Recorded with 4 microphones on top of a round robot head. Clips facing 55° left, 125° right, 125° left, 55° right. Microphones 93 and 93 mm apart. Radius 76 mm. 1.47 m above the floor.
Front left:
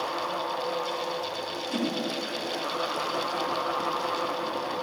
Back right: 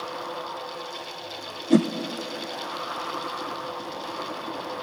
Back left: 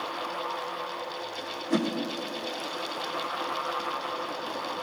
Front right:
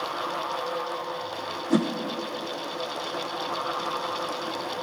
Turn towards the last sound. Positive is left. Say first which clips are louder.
# back right 11 dB, front right 3 dB
turn(degrees=-135)